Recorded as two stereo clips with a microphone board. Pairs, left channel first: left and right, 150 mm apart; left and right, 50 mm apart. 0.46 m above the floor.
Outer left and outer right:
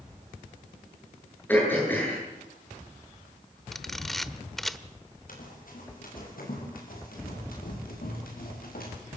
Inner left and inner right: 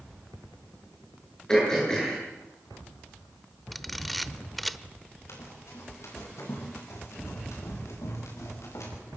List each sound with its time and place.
1.5 s throat clearing: 15° left (ahead or behind), 9.5 m
3.7 s a camera shutter: centre (ahead or behind), 0.8 m
5.3 s running footsteps: 70° left (ahead or behind), 9 m; by 8.9 s 85° left, 9 m